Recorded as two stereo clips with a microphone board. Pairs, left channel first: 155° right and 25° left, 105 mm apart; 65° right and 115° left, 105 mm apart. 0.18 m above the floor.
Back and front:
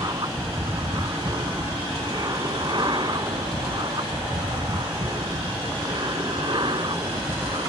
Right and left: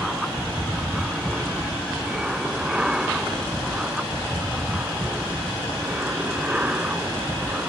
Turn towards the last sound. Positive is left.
turn(degrees=40)